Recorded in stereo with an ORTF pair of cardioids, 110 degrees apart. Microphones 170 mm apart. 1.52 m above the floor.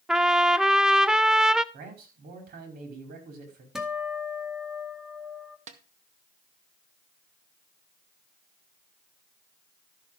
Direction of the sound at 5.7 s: 45° right.